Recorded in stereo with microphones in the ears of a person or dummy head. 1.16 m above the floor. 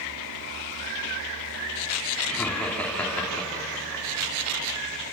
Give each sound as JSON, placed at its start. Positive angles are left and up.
{"t": 2.3, "sound": "laughter", "side_deg": 5, "distance_m": 3.5}